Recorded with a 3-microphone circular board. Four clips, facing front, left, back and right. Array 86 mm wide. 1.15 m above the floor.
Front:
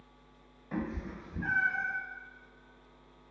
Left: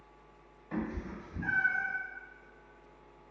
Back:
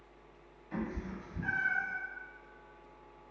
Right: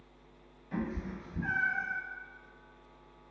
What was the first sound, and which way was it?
A cat meowing, 35° left.